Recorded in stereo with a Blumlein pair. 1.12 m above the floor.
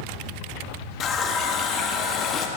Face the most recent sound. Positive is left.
turn(degrees=25)